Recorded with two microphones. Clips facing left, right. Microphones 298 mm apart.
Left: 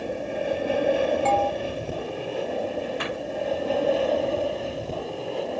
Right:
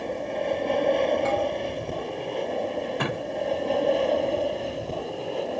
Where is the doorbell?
15° right (ahead or behind).